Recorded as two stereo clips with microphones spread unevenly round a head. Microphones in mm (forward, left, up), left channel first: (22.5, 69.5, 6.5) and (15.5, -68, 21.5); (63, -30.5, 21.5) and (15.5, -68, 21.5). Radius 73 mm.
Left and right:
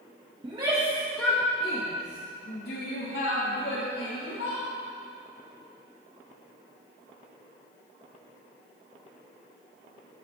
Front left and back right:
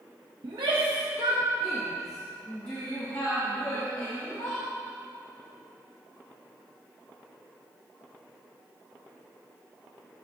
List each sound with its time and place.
0.4 s a shout: 155° right, 1.2 m; by 4.6 s 100° left, 3 m